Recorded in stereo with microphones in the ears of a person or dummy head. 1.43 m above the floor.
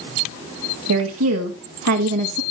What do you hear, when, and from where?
0.9 s a woman speaking: 80° right, 2.5 m; by 2.4 s 65° right (ahead or behind), 1.7 m